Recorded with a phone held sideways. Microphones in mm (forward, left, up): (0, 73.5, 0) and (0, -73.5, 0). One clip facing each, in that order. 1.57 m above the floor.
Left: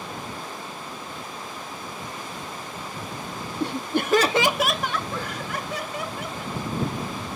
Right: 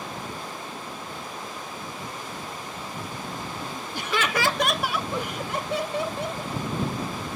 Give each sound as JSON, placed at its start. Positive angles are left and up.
{"t": 3.6, "sound": "laughter", "side_deg": 80}